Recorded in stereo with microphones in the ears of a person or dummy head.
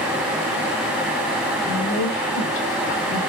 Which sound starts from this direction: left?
A woman speaking, at 1.7 s.